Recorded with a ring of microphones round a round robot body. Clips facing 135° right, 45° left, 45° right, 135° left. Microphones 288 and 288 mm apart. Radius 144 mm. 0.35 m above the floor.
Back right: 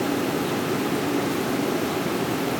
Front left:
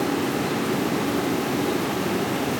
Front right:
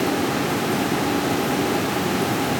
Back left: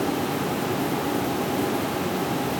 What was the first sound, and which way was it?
Only background noise.